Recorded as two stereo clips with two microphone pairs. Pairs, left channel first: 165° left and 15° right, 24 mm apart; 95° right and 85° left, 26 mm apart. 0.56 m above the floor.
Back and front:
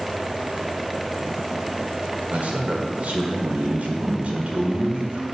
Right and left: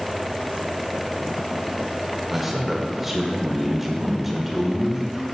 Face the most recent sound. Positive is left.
turn(degrees=0)